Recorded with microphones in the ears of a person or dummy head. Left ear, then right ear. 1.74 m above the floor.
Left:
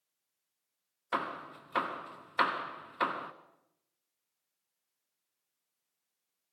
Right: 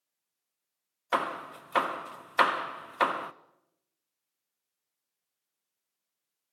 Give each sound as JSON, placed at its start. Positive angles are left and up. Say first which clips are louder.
{"t": 1.1, "sound": "hammering", "louder": "right 5 dB", "side_deg": -25, "distance_m": 0.8}